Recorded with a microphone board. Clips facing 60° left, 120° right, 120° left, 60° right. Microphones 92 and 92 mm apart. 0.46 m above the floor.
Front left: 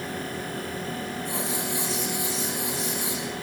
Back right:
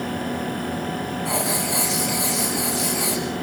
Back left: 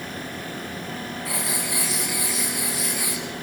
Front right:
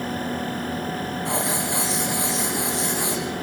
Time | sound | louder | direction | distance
1.2 | writing | back right 7 dB, front right 5 dB | 125° right | 6 m